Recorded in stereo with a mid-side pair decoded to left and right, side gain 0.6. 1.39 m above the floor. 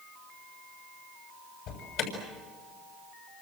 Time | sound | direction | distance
1.7 | an alarm | 70° left | 7 m